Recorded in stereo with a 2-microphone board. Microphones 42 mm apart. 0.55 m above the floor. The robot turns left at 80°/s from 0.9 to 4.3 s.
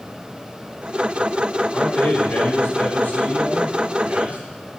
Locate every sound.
1.7 s a man speaking: 155° left, 2.5 m; by 4.4 s 50° right, 2.5 m